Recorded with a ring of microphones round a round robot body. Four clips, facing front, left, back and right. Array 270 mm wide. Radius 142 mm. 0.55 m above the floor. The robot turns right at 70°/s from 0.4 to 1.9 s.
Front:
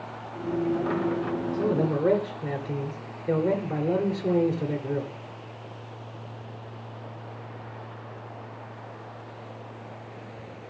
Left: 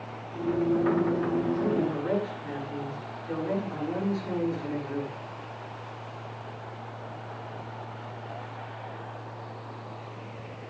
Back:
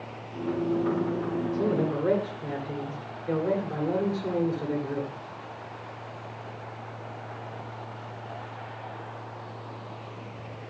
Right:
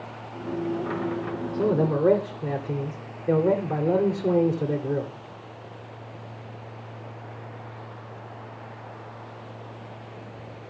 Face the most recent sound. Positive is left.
turn(degrees=-75)